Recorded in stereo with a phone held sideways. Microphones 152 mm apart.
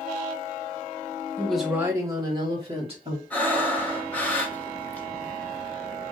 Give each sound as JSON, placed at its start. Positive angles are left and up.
{"t": 1.4, "sound": "a woman speaking", "side_deg": 10, "distance_m": 0.8}
{"t": 3.3, "sound": "breathing", "side_deg": 10, "distance_m": 0.9}